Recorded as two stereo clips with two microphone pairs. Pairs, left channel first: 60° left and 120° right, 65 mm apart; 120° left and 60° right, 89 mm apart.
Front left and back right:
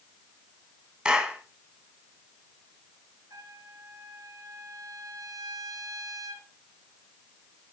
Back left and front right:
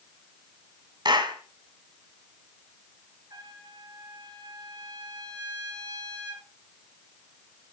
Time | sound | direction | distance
1.1 | a clap | 50° right | 1.8 m
3.3 | a trumpet | 100° right | 2.5 m